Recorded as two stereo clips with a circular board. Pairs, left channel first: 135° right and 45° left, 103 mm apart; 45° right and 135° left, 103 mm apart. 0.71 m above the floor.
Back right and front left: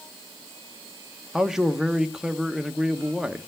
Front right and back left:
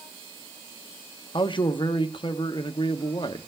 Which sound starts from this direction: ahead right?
A man speaking, at 1.3 s.